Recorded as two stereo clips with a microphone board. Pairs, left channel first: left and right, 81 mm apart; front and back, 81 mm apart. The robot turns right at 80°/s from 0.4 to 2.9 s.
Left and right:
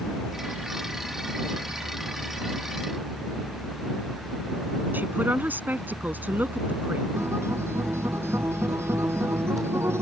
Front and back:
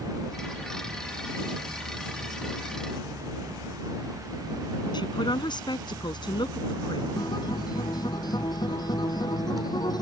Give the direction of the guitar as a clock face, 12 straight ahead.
1 o'clock.